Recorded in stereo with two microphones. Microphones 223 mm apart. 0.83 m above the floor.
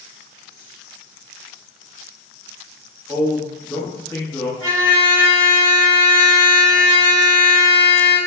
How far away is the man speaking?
About 0.8 m.